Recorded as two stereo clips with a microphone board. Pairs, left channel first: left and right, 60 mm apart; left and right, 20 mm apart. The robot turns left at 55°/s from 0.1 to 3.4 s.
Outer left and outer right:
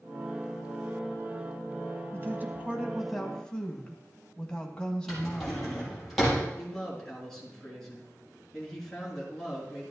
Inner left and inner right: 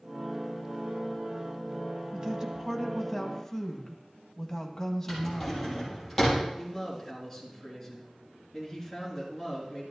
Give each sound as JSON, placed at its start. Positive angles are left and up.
{"t": 2.1, "sound": "a woman speaking", "azimuth_deg": -125, "distance_m": 1.7}
{"t": 5.1, "sound": "a drawer", "side_deg": 5, "distance_m": 5.5}
{"t": 6.6, "sound": "a man speaking", "side_deg": 5, "distance_m": 3.5}